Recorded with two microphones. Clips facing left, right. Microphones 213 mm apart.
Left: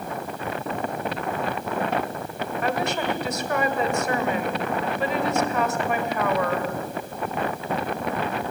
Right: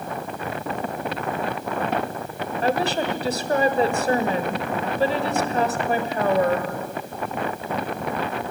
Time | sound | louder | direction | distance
2.6 | a woman speaking | right 4 dB | 35° right (ahead or behind) | 1.9 m